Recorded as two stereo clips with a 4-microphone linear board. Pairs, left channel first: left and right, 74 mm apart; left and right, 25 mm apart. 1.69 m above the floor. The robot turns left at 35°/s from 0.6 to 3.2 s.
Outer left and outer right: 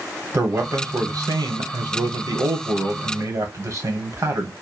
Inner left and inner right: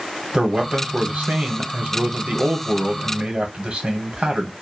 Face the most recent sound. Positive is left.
turn(degrees=-135)